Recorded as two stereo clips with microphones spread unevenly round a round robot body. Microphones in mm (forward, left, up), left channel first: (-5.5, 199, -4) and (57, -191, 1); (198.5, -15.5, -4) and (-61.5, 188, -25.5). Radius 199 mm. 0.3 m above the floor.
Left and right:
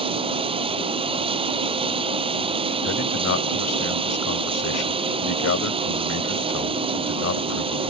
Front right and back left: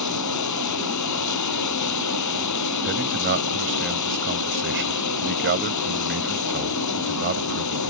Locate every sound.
0.0 s running water: 5° right
2.9 s a man speaking: 125° left